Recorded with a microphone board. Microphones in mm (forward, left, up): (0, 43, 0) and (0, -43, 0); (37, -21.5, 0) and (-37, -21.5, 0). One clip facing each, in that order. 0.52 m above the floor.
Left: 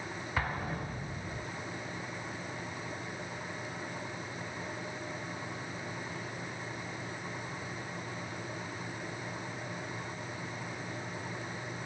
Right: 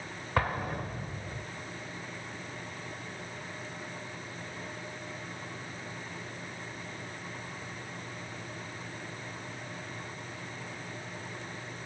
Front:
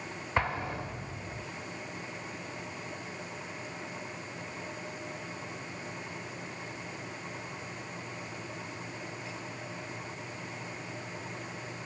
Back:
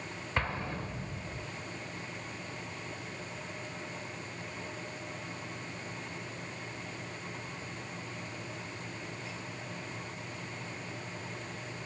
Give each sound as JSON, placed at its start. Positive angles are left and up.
{"t": 0.4, "sound": "an explosion", "azimuth_deg": -70, "distance_m": 1.7}